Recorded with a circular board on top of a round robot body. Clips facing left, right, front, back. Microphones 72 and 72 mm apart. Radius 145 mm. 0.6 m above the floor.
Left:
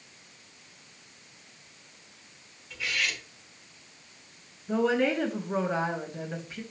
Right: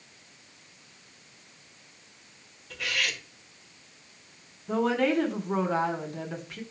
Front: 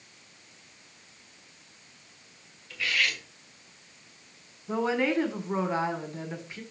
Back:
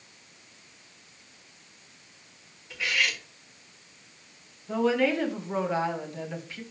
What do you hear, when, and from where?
2.7 s cutlery clinking: 110° right, 1.6 m
4.7 s a woman speaking: 70° right, 2 m